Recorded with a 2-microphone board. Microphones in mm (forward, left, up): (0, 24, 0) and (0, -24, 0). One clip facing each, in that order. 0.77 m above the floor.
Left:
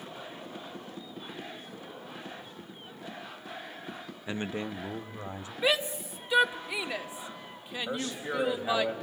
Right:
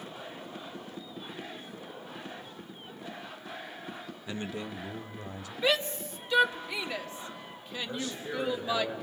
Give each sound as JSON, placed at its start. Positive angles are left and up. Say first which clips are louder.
{"t": 4.3, "sound": "a man speaking", "louder": "left 3 dB", "side_deg": 25, "distance_m": 0.7}
{"t": 5.6, "sound": "a shout", "louder": "even", "side_deg": 15, "distance_m": 1.7}
{"t": 7.9, "sound": "a man speaking", "louder": "left 3 dB", "side_deg": 75, "distance_m": 5.0}